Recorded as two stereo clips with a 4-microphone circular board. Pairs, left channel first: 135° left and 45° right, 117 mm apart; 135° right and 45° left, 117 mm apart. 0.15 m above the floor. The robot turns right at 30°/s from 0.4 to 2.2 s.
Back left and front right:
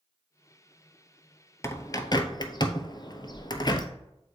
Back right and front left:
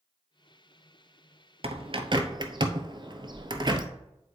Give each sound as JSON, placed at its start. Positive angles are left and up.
{"t": 1.6, "sound": "a bird", "azimuth_deg": 70, "distance_m": 0.7}